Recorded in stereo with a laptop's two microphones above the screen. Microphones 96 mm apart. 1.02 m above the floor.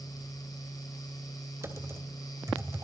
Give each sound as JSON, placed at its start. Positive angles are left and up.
{"t": 0.0, "sound": "a fan", "side_deg": 40, "distance_m": 4.5}
{"t": 1.6, "sound": "typing on a keyboard", "side_deg": -30, "distance_m": 2.5}